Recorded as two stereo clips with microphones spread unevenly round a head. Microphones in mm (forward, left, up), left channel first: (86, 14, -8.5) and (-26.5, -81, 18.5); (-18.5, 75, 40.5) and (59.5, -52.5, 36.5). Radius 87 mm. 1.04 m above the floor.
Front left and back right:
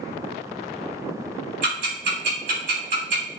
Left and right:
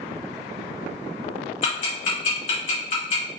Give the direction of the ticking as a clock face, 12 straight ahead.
6 o'clock.